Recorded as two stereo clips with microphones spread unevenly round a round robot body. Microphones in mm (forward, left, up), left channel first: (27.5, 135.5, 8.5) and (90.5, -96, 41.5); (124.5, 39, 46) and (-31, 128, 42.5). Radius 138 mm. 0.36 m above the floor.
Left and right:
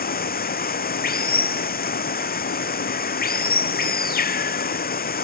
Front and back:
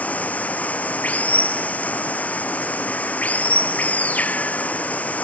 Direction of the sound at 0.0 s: 55° left.